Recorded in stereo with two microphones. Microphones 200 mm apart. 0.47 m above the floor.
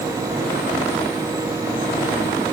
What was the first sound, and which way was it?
Only background noise.